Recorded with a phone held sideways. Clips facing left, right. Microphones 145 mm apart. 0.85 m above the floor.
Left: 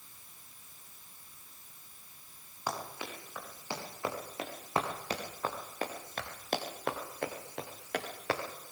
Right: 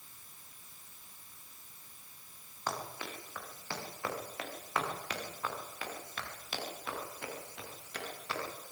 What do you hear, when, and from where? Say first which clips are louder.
2.7 s running footsteps: left 1 dB; 10° left (ahead or behind), 8.5 m; by 8.4 s 80° left, 6 m